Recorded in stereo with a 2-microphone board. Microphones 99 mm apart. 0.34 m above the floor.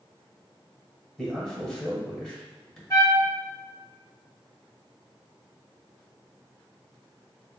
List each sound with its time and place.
1.2 s a man speaking: 10° left (ahead or behind), 1.3 m
2.9 s a trumpet: 30° left (ahead or behind), 1.4 m